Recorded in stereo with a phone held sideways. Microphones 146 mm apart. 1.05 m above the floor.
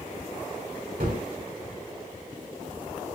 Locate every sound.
1.0 s a gunshot: 80° right, 2 m